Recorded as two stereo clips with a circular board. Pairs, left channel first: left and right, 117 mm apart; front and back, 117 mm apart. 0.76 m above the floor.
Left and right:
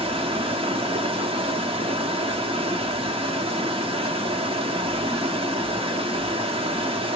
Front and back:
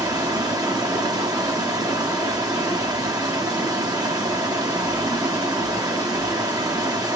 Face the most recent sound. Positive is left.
turn(degrees=-125)